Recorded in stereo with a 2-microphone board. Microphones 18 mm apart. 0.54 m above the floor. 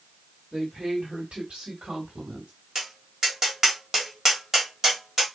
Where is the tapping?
15° right (ahead or behind), 2.5 m.